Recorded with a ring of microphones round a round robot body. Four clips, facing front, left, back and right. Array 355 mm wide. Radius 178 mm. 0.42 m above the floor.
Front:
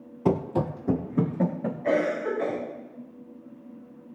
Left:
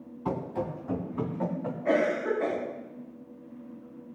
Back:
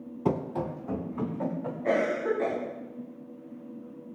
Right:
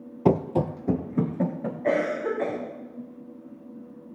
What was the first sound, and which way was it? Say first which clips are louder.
Running footsteps: right 9 dB, front 4 dB; 85° right.